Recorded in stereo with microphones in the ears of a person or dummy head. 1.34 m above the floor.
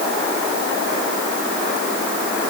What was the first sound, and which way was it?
Only background noise.